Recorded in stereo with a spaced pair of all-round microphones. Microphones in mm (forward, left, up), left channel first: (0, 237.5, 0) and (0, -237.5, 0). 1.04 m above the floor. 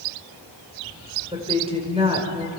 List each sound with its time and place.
1.3 s a woman speaking: 10° right (ahead or behind), 5 m